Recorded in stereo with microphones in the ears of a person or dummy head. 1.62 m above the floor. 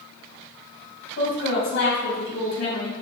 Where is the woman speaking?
65° left (ahead or behind), 3.5 m.